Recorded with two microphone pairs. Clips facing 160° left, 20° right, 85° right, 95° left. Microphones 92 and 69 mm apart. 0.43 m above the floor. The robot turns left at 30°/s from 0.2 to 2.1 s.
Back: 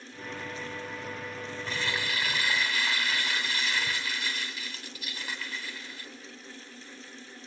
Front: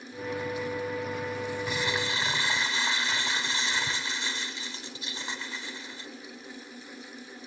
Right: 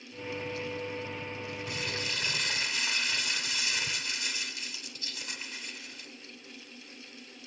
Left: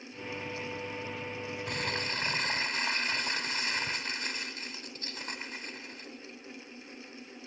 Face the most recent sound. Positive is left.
turn(degrees=45)